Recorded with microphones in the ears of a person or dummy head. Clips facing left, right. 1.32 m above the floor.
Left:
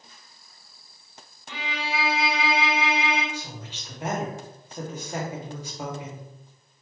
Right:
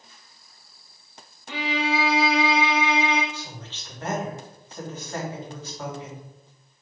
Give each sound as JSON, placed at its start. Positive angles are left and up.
{"t": 1.5, "sound": "a violin", "side_deg": -25, "distance_m": 0.8}
{"t": 3.3, "sound": "a woman speaking", "side_deg": 15, "distance_m": 1.3}